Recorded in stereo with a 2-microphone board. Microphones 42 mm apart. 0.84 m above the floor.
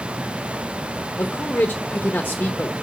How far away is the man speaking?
About 0.8 m.